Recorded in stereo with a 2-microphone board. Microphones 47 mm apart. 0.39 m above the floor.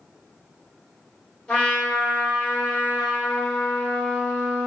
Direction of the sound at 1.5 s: 20° left (ahead or behind).